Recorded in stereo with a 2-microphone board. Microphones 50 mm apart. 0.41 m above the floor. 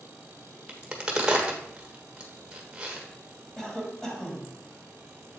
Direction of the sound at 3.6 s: 15° left (ahead or behind).